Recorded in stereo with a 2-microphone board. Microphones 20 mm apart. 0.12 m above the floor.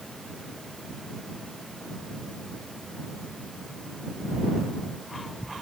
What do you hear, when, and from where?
Only background noise.